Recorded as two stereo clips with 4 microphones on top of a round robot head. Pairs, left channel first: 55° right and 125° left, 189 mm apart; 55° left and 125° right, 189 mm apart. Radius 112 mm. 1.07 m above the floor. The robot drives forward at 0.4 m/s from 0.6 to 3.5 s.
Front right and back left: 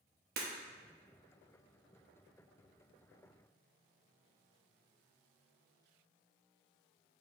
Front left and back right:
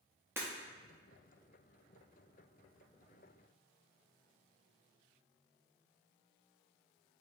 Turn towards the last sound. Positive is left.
turn(degrees=175)